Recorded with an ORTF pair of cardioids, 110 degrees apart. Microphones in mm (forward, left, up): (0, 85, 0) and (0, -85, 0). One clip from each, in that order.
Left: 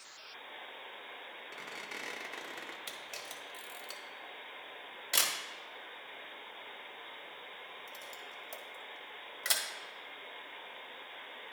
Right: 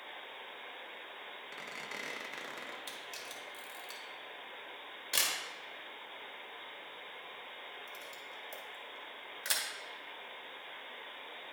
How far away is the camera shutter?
About 1.5 m.